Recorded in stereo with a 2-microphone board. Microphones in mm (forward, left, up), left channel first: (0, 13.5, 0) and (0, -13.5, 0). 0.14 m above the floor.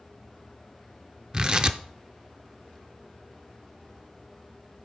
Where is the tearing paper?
30° right (ahead or behind), 0.7 m.